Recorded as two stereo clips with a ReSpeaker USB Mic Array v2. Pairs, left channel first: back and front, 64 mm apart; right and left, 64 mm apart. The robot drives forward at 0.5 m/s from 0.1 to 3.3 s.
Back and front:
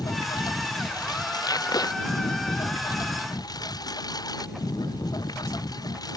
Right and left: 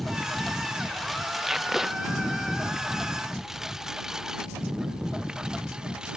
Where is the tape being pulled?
175° left.